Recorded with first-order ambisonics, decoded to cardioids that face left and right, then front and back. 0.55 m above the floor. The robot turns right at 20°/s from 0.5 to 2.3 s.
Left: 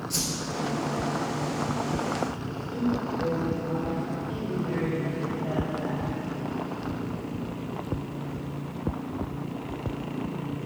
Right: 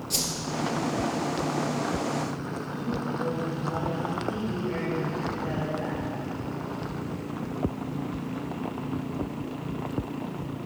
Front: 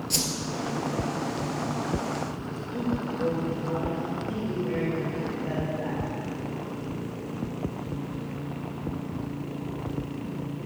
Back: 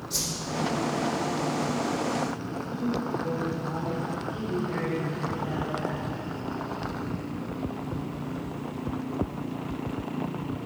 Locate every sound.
0.1 s a whoosh: 10° right, 1.9 m
2.4 s a man speaking: 40° left, 2.5 m